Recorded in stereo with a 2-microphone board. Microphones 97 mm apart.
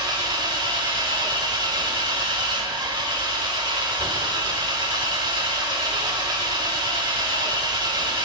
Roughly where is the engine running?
Right.